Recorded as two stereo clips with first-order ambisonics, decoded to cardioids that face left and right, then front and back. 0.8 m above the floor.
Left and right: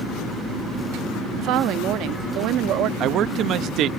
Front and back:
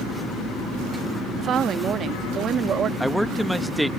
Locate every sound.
1.4 s a woman speaking: 125° right
3.0 s a man speaking: 95° right